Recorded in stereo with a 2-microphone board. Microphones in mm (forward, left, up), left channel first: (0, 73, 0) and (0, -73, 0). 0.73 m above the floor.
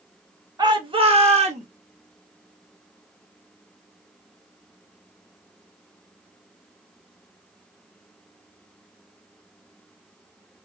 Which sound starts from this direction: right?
A shout, at 0.6 s.